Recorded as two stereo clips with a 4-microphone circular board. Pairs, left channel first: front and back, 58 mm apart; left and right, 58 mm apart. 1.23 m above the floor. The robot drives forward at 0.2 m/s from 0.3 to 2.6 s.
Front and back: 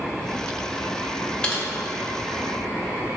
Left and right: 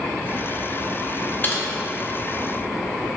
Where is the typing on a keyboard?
55° left, 0.7 m; by 1.6 s 60° left, 0.7 m.